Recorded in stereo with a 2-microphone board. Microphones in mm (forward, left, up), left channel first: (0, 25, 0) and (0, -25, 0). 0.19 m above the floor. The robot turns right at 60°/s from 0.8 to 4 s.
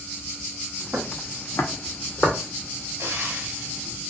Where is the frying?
70° right (ahead or behind), 0.8 m; by 4.1 s 15° right (ahead or behind), 0.8 m.